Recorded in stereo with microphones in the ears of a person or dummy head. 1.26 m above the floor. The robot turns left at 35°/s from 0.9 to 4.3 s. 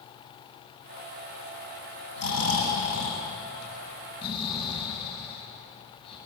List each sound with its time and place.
2.2 s snoring: 70° left (ahead or behind), 10 m; by 6.2 s 35° left (ahead or behind), 10 m